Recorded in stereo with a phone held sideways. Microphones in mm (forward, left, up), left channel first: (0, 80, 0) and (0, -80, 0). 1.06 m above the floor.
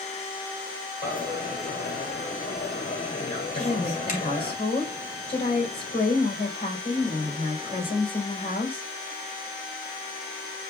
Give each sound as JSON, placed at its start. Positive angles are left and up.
{"t": 1.0, "sound": "a dropped coin", "side_deg": 50, "distance_m": 1.9}
{"t": 3.5, "sound": "a woman speaking", "side_deg": 40, "distance_m": 3.5}